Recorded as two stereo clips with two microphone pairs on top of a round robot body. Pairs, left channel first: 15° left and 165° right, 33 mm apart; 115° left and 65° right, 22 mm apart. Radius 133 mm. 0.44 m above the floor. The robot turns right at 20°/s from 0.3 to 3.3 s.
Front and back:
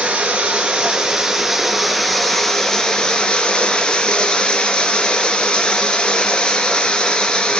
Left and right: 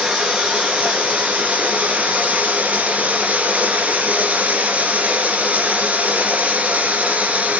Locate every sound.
0.0 s running water: 110° right, 2.5 m; by 7.6 s 50° right, 2.5 m